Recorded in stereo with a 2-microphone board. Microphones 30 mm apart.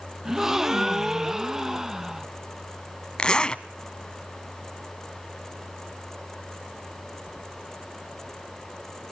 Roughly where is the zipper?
Left.